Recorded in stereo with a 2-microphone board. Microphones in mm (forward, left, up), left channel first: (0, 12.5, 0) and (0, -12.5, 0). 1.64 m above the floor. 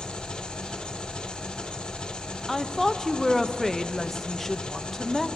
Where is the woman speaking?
10° left (ahead or behind), 1.0 m.